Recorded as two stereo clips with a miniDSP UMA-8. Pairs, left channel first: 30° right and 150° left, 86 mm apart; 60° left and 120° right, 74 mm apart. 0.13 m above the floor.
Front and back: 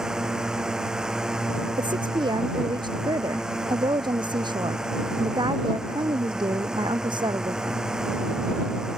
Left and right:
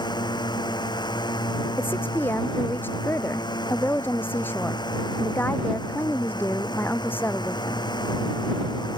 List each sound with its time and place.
0.0 s a drone: 65° left
1.8 s a woman speaking: 120° left